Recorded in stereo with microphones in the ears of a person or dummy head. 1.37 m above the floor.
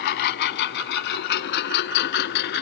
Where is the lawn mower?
55° left (ahead or behind); by 2.6 s 60° left (ahead or behind).